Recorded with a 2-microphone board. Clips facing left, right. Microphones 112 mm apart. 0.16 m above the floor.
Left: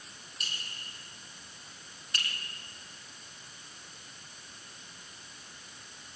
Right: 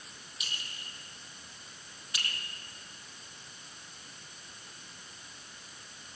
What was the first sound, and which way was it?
A clink, 5° right (ahead or behind).